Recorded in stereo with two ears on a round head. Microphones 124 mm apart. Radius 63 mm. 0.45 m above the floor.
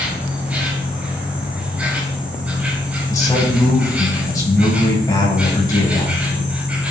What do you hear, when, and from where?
0.0 s an insect: 10° right (ahead or behind), 5 m
3.1 s a man speaking: 25° left (ahead or behind), 6 m